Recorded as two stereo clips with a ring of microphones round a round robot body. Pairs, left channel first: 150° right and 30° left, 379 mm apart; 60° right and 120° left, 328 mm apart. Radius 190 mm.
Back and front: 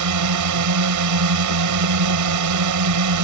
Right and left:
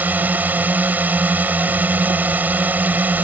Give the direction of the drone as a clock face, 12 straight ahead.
11 o'clock.